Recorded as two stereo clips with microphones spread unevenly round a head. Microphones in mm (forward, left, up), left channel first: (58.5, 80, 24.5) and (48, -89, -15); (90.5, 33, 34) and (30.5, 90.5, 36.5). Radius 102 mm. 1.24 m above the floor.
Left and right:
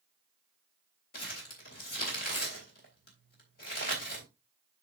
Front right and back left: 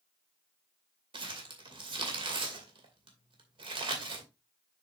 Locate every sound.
1.1 s crumpling: 125° left, 2.5 m